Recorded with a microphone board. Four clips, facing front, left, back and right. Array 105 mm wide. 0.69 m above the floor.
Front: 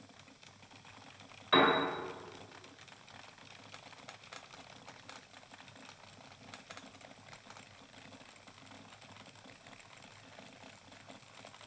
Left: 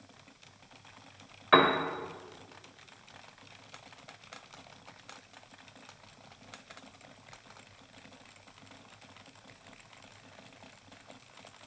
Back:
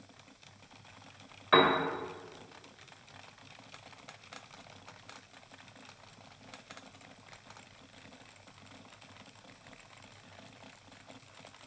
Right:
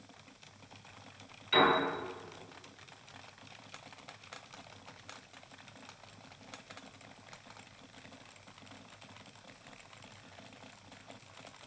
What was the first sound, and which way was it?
A piano, 110° left.